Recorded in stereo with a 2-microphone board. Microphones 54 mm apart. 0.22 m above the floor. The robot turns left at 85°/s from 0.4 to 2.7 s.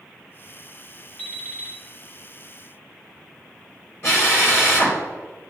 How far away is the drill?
About 3 m.